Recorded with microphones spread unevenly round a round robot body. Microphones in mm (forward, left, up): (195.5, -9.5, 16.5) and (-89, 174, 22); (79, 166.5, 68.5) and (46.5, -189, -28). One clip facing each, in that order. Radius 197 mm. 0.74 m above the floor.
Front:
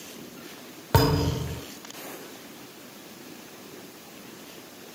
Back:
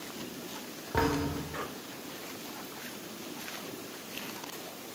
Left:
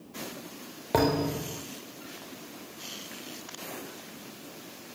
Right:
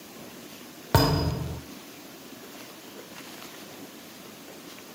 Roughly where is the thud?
Ahead right.